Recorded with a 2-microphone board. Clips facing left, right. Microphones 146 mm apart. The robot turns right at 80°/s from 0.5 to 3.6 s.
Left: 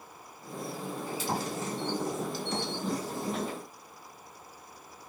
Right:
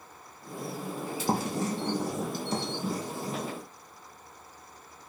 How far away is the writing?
About 3.5 m.